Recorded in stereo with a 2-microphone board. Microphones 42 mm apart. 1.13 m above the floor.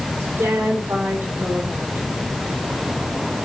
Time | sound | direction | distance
0.2 | a woman speaking | 75° right (ahead or behind) | 4 m